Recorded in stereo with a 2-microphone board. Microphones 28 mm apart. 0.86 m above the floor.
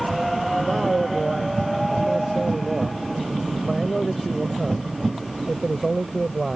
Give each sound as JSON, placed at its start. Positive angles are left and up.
{"t": 0.6, "sound": "a man speaking", "side_deg": 0}